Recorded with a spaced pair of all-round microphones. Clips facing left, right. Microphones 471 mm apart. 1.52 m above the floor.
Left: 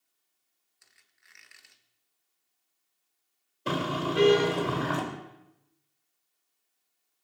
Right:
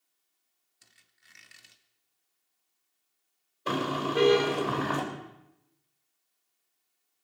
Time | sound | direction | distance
0.8 | a squeak | 55° right (ahead or behind) | 1.1 m
3.7 | a car horn | 45° left (ahead or behind) | 3.5 m